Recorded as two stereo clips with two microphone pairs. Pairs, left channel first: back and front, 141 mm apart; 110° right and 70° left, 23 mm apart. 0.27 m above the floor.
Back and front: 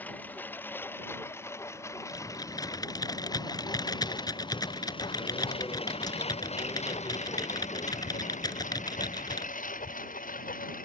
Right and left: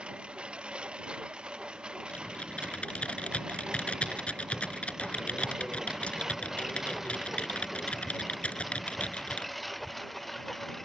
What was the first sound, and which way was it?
A lawn mower, 100° left.